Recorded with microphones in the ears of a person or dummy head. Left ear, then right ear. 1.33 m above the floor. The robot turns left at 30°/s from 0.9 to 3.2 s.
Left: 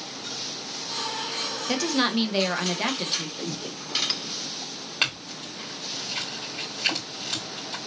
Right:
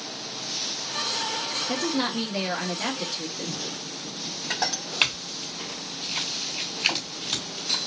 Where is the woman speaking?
65° left, 1.0 m; by 3.3 s 20° left, 1.0 m.